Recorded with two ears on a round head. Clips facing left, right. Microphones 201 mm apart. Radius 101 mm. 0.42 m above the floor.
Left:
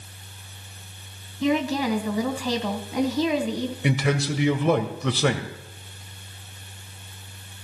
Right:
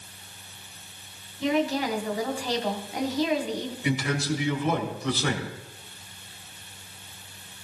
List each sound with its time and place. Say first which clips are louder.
1.4 s a woman speaking: left 2 dB; 75° left (ahead or behind), 2.5 m
3.8 s a man speaking: left 2 dB; 55° left (ahead or behind), 2 m